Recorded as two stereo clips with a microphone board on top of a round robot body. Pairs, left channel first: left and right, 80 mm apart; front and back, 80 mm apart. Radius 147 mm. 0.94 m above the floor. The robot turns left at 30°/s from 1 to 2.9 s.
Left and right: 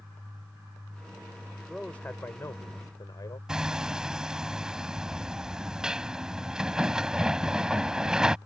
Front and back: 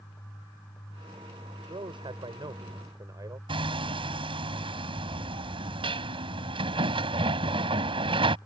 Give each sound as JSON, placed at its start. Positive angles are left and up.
{"t": 1.7, "sound": "a man speaking", "azimuth_deg": 170}
{"t": 3.5, "sound": "hammering", "azimuth_deg": -170}